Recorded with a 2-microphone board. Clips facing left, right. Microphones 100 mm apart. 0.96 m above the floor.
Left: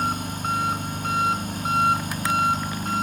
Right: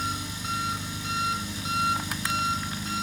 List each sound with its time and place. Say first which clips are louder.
0.0 s an engine running: left 7 dB; 50° left (ahead or behind), 1.6 m